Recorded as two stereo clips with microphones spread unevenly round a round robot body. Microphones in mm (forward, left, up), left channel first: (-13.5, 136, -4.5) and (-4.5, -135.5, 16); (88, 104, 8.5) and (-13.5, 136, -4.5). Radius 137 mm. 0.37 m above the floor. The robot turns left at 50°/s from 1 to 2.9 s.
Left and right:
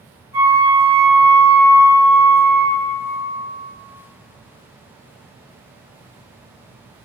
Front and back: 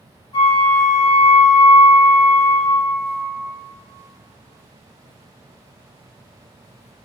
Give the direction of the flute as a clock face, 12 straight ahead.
12 o'clock.